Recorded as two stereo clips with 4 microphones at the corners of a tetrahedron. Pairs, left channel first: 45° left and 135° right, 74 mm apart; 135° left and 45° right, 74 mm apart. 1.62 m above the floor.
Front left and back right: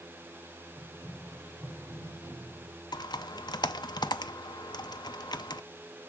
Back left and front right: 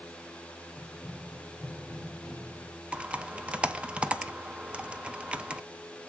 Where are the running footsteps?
175° right, 2.5 m; by 2.8 s 110° right, 2.5 m.